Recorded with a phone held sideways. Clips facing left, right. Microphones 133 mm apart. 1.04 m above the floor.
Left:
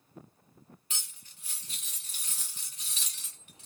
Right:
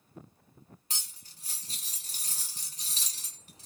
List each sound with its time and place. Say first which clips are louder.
0.9 s cutlery clinking: right 1 dB; 35° right (ahead or behind), 0.8 m